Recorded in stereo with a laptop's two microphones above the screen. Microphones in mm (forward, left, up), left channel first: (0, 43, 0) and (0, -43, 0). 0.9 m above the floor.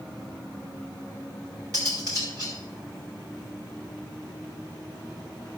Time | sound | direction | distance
1.7 | cutlery clinking | 50° right (ahead or behind) | 3.5 m